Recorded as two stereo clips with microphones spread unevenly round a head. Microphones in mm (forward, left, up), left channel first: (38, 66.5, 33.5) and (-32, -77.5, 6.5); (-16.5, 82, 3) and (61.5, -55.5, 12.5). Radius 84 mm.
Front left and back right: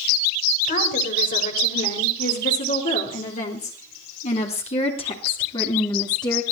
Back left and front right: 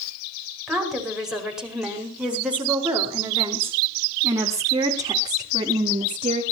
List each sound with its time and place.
0.7 s a woman speaking: 30° left, 5 m; by 6.4 s 5° right, 3 m